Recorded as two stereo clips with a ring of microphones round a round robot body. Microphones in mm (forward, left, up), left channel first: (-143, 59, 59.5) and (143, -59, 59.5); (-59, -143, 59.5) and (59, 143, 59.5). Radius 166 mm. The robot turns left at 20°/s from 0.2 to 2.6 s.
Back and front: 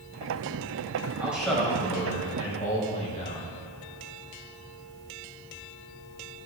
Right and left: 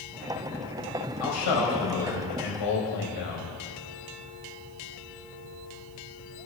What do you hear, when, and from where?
1.2 s a man speaking: 105° right, 4 m; by 3.5 s 135° right, 4 m